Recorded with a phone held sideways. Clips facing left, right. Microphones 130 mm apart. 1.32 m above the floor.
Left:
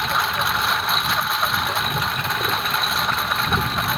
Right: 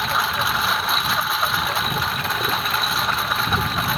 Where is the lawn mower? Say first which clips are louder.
Even; centre (ahead or behind).